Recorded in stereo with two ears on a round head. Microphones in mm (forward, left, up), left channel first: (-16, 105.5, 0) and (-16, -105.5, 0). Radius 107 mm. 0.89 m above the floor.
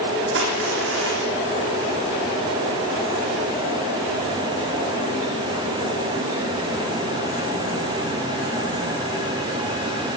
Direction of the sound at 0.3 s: 60° right (ahead or behind).